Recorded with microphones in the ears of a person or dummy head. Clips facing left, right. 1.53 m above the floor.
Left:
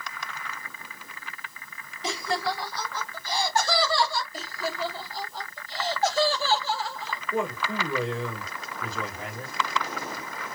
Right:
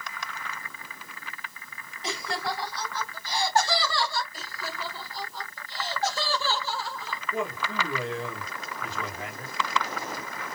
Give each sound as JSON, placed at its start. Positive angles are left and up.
{"t": 2.0, "sound": "laughter", "side_deg": 75, "distance_m": 2.5}
{"t": 4.3, "sound": "laughter", "side_deg": 75, "distance_m": 3.0}
{"t": 7.3, "sound": "a man speaking", "side_deg": 80, "distance_m": 3.0}